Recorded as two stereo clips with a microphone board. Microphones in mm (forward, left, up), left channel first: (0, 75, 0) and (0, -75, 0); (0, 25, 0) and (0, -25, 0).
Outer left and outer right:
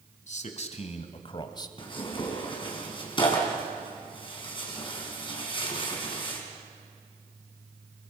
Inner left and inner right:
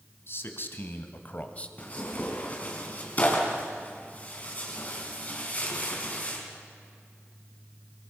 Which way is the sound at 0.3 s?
55° left (ahead or behind).